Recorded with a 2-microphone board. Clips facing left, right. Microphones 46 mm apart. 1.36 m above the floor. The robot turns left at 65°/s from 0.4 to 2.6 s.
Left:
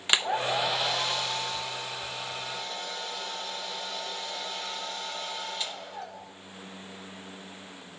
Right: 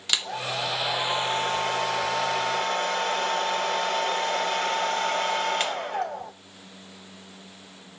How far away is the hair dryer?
About 0.8 m.